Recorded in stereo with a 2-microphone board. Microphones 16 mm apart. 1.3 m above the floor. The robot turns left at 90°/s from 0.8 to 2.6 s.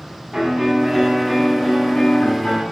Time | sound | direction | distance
0.3 | a piano | 165° right | 9 m